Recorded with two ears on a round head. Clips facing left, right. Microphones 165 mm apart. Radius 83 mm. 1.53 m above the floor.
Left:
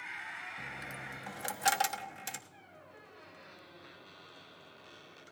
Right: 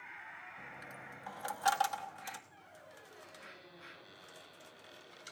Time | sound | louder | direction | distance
0.6 | a dropped coin | left 4 dB | 25° left (ahead or behind) | 1.0 m
2.5 | a squeak | left 1 dB | 10° right (ahead or behind) | 9 m